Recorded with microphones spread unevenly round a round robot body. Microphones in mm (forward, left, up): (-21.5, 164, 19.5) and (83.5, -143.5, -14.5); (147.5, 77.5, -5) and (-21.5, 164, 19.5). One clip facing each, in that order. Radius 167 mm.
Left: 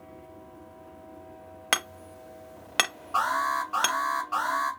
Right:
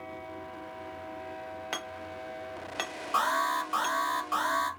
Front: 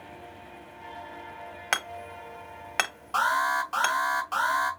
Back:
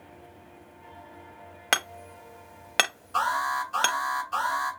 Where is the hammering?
95° left, 1.1 m.